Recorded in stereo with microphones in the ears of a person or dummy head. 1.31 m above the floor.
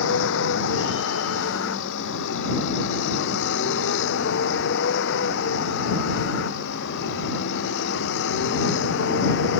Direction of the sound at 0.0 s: 70° left (ahead or behind).